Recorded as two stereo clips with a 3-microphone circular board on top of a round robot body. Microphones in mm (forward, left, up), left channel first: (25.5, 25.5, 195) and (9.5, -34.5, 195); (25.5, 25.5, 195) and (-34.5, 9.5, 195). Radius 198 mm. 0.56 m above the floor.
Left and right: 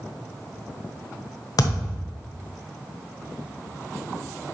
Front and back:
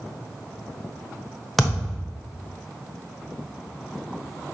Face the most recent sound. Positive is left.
turn(degrees=105)